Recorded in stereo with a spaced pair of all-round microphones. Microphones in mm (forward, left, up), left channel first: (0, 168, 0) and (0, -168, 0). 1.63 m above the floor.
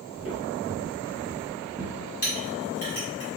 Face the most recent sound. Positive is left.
turn(degrees=45)  # may be behind; listen again after turning